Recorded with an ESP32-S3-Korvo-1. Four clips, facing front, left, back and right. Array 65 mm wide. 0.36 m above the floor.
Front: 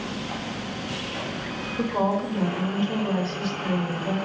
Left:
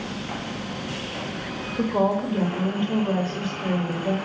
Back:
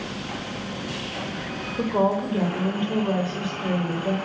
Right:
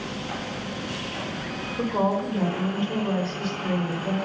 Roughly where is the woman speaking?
Behind left.